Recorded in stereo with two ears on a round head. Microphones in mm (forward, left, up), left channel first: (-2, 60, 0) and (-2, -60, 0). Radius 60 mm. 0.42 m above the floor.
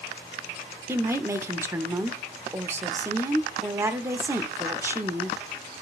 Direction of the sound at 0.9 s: 15° right (ahead or behind).